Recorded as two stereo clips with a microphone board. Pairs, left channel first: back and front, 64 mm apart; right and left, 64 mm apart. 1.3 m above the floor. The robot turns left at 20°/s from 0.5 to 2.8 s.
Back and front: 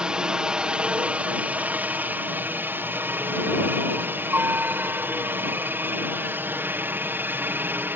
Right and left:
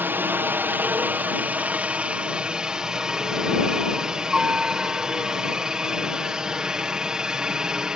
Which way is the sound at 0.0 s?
65° left.